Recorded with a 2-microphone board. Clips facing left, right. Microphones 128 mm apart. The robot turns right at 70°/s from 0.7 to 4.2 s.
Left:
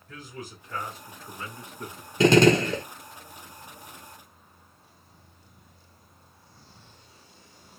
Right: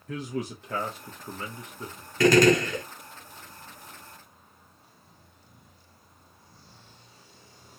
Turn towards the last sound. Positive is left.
turn(degrees=-175)